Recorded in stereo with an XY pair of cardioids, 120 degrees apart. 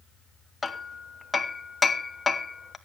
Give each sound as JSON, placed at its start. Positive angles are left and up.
{"t": 0.6, "sound": "hammering", "azimuth_deg": 20, "distance_m": 1.0}